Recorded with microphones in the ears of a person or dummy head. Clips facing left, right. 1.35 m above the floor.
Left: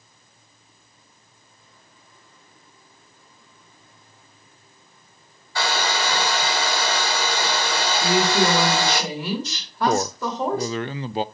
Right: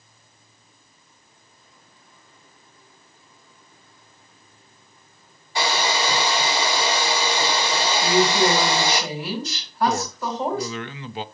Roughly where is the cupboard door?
No cupboard door in this recording.